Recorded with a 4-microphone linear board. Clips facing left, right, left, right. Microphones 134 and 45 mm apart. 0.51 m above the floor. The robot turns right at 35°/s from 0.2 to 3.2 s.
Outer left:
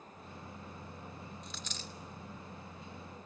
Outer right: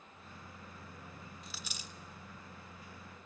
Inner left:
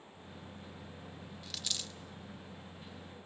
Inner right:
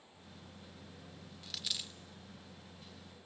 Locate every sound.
1.4 s a dropped coin: centre (ahead or behind), 0.5 m; by 1.9 s 15° right (ahead or behind), 0.5 m